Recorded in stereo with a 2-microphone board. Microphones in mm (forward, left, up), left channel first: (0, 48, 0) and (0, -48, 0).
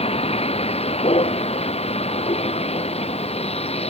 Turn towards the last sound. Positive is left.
turn(degrees=80)